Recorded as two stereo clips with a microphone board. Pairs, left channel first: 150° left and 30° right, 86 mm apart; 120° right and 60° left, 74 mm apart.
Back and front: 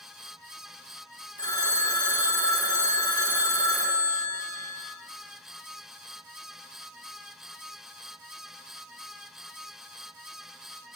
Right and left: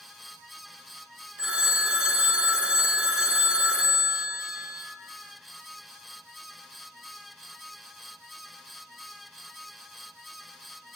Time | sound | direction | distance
1.4 | a phone ringing | 135° left | 1.4 m